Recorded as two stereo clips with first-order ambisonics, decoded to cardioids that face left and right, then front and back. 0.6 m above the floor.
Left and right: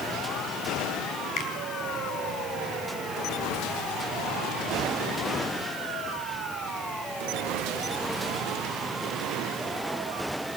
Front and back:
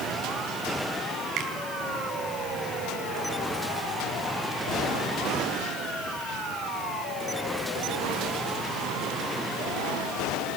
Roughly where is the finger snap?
Behind left.